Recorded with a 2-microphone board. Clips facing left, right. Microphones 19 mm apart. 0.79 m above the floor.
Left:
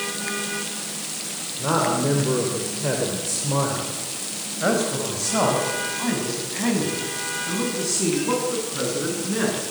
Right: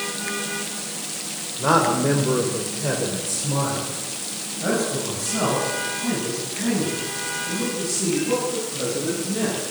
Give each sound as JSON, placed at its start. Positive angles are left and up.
{"t": 1.6, "sound": "a man speaking", "side_deg": -30, "distance_m": 3.5}